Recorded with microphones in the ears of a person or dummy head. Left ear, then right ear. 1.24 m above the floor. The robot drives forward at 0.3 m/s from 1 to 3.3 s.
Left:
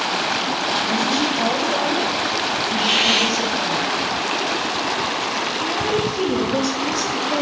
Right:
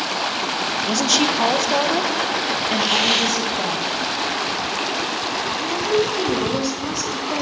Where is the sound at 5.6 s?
10° left (ahead or behind), 1.0 m.